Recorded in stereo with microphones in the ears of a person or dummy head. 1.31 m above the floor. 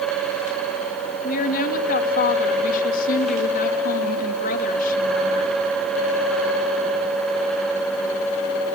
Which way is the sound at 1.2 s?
60° left (ahead or behind).